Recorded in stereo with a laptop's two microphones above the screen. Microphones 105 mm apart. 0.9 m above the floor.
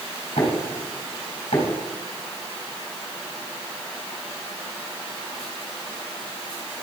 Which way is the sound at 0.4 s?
75° left (ahead or behind).